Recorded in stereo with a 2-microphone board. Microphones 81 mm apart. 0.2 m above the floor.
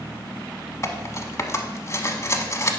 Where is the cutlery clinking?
35° left (ahead or behind), 0.8 m.